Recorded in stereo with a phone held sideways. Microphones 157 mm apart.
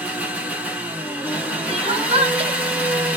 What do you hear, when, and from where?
0.0 s an engine running: 10° right (ahead or behind), 0.9 m
1.7 s crying: 40° right (ahead or behind), 0.7 m